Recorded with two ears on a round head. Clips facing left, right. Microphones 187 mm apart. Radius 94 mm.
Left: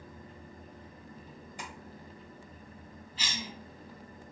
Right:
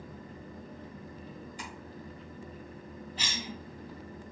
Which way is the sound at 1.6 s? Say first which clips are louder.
Left 3 dB; 45° left (ahead or behind).